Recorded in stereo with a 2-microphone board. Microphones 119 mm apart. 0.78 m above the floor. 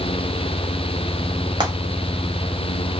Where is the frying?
35° right (ahead or behind), 1.0 m.